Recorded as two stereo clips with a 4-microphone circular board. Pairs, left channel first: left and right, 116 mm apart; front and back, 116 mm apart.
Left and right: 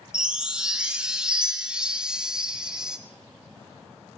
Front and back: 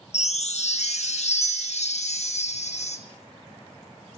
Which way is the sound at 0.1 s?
5° right.